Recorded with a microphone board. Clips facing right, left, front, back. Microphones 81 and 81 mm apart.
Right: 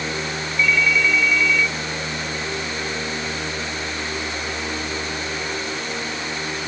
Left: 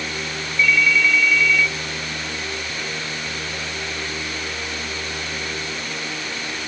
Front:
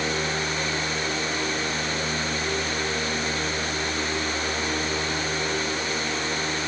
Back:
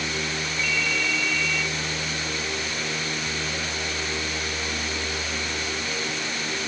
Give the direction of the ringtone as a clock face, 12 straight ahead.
6 o'clock.